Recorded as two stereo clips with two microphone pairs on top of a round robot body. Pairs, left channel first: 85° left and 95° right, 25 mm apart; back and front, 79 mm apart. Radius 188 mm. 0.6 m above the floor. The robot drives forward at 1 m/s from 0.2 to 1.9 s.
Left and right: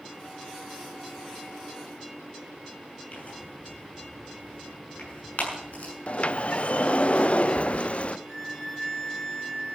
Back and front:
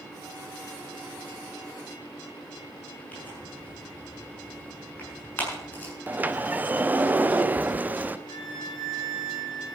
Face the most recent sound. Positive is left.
turn(degrees=175)